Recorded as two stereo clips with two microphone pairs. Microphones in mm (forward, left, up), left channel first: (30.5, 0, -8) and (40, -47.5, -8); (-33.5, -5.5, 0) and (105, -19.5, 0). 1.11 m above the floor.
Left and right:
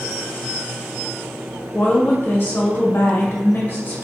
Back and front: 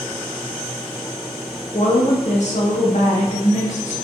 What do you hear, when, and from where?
1.7 s a woman speaking: 145° left, 0.7 m